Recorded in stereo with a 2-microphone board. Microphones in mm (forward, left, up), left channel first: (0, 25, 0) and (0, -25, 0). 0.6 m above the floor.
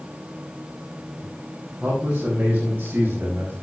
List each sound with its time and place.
1.8 s a man speaking: 15° right (ahead or behind), 5 m; by 3.5 s 40° right (ahead or behind), 4 m